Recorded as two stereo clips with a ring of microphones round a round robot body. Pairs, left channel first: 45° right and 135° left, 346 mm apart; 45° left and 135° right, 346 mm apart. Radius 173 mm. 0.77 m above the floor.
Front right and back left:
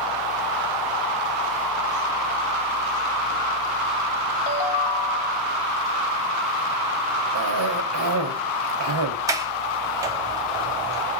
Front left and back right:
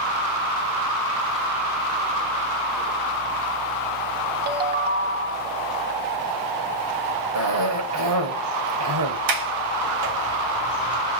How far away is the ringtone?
About 1.1 m.